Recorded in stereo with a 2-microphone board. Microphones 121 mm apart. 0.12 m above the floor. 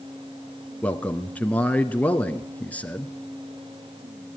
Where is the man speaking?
10° left (ahead or behind), 1.2 m.